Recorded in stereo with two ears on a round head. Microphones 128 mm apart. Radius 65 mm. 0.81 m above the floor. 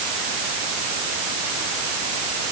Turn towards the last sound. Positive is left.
No sound to turn to.